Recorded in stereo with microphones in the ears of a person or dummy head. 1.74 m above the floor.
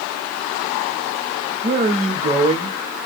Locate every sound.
1.6 s a man speaking: 30° right (ahead or behind), 0.8 m